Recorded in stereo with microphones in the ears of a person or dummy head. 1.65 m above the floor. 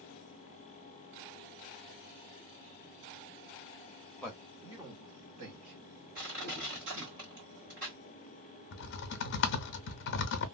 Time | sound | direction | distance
4.2 | a man speaking | 5° left (ahead or behind) | 0.8 m
6.2 | crushing | 55° right (ahead or behind) | 1.9 m
8.7 | typing on a keyboard | 55° left (ahead or behind) | 0.6 m